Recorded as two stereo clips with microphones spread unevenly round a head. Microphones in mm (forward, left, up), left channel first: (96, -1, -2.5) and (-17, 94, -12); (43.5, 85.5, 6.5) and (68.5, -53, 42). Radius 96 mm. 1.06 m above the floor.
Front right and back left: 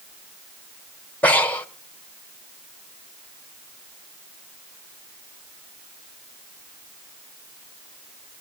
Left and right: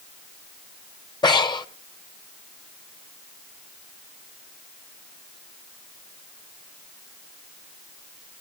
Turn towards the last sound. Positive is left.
turn(degrees=35)